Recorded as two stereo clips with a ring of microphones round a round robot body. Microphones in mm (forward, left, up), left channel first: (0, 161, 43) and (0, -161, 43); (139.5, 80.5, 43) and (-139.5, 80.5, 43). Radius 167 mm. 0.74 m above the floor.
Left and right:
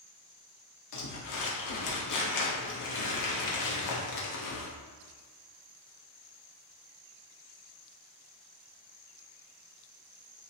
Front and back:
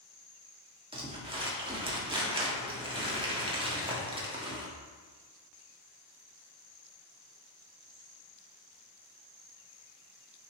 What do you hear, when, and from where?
0.9 s crumpling: 110° left, 1.9 m